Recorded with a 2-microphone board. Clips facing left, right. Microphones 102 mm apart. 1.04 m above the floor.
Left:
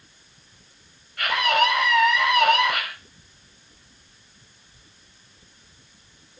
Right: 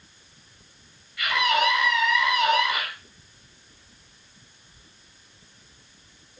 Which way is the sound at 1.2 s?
50° left (ahead or behind).